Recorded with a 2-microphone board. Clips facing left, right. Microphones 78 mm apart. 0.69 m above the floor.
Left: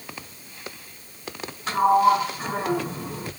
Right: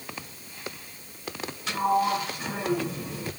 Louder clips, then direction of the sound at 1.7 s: Left 7 dB; 40° left (ahead or behind).